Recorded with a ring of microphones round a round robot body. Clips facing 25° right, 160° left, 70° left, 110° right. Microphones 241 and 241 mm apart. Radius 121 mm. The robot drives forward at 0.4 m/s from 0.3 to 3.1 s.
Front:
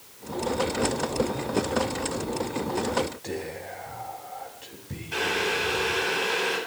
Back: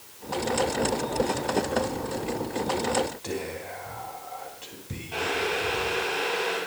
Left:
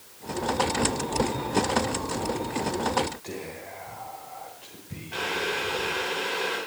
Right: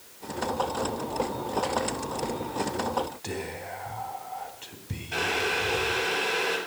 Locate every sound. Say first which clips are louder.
3.2 s whispering: back 1 dB, right 2 dB; 125° right, 3.5 m
5.1 s boiling: even, right 1 dB; 80° right, 10 m